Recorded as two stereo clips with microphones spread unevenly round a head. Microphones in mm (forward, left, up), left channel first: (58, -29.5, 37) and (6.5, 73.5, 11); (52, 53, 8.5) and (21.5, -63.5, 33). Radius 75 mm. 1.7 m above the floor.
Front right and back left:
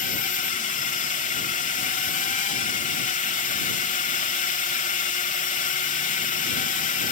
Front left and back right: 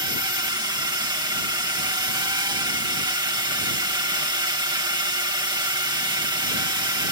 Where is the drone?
45° right.